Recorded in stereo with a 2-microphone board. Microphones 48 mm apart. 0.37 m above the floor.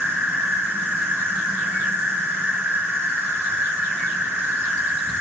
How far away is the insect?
About 1.8 m.